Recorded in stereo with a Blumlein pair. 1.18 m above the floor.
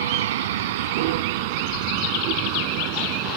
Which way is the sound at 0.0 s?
60° right.